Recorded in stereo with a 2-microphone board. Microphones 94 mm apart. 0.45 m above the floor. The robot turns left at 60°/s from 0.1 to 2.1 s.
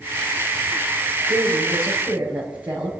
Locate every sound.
1.3 s a woman speaking: 115° right, 6.5 m; by 2.9 s 160° right, 6.5 m